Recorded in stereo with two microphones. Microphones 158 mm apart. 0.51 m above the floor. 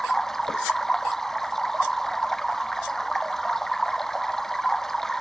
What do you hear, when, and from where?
0.0 s running water: 5° left (ahead or behind)